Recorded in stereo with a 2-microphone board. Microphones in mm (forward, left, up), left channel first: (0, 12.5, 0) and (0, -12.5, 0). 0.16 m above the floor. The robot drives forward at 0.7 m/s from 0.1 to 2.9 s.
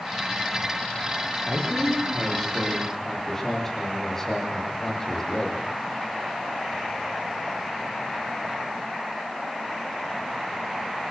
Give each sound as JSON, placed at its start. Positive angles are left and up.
{"t": 1.5, "sound": "a man speaking", "side_deg": 20, "distance_m": 7.5}